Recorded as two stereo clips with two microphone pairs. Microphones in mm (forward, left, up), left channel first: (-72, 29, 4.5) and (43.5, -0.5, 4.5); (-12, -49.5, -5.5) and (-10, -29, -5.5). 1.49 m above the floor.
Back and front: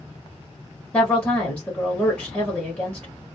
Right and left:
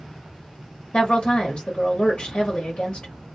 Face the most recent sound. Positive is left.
turn(degrees=-120)